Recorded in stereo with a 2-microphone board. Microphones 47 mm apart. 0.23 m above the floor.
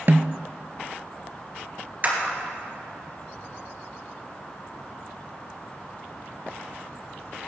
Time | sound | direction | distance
0.1 | a snare drum | 50° right (ahead or behind) | 0.6 m
2.0 | a clap | 40° right (ahead or behind) | 3 m